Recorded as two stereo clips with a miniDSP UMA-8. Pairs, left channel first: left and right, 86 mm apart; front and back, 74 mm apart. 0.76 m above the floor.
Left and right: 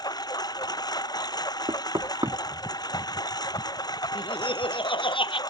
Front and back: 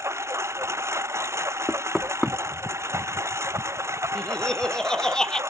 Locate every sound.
0.0 s a lawn mower: 130° left
1.7 s knocking: 85° right
4.2 s laughter: 80° left